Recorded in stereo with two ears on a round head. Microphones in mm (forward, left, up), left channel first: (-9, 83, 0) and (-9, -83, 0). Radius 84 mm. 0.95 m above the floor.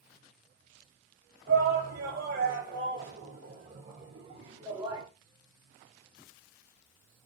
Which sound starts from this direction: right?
A shout, at 1.5 s.